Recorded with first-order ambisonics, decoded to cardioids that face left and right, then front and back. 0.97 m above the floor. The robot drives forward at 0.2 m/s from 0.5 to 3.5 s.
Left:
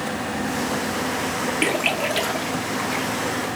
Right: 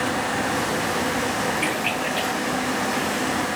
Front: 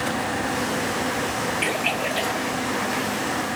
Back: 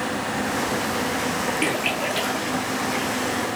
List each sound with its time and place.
1.6 s a splash: 100° left, 1.0 m; by 3.0 s 115° left, 1.1 m